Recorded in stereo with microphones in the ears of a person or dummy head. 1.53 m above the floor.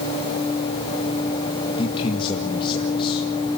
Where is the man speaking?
30° left (ahead or behind), 2 m.